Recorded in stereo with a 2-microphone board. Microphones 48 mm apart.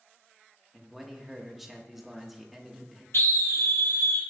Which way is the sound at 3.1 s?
70° left (ahead or behind).